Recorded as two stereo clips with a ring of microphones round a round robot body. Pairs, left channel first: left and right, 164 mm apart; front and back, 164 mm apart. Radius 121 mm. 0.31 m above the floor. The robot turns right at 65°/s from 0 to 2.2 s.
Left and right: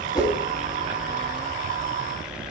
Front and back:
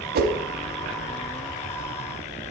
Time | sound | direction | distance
0.1 | a whoosh | 160° left | 1.1 m